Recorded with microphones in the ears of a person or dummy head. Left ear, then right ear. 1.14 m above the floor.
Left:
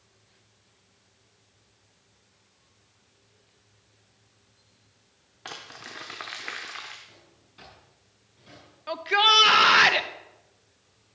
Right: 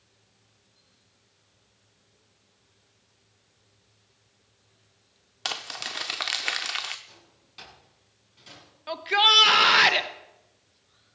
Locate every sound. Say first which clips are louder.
5.5 s crumpling: right 8 dB; 30° right (ahead or behind), 0.8 m
7.1 s a drawer: right 1 dB; 30° right (ahead or behind), 7.5 m
8.9 s a shout: even; centre (ahead or behind), 0.7 m